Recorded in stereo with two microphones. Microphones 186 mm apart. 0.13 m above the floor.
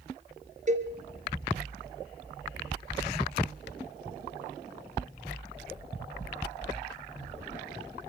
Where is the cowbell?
40° right (ahead or behind), 2.5 m.